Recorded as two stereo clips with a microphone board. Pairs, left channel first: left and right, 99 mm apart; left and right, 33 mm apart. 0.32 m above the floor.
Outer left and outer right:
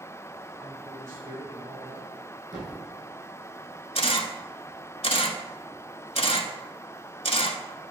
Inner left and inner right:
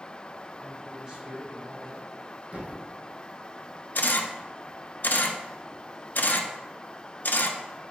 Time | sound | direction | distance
0.6 | a man speaking | 30° right (ahead or behind) | 3 m
2.5 | a thud | 45° right (ahead or behind) | 2 m
4.0 | a camera shutter | 75° left (ahead or behind) | 1.0 m